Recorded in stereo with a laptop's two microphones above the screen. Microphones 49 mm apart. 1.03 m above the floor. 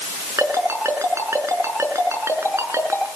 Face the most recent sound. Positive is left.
turn(degrees=-70)  # may be behind; listen again after turning